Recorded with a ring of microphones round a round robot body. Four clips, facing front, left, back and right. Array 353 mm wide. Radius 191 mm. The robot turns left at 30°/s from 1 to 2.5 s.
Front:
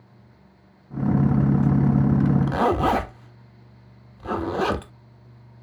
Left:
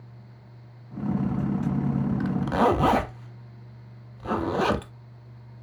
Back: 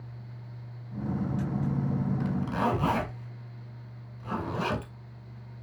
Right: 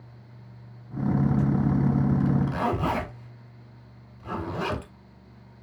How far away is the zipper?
About 1.5 m.